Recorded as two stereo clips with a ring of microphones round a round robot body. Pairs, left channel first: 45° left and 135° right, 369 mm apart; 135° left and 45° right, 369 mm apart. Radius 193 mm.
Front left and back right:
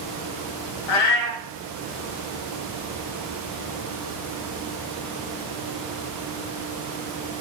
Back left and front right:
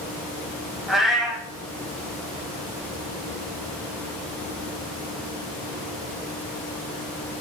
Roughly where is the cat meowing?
Ahead left.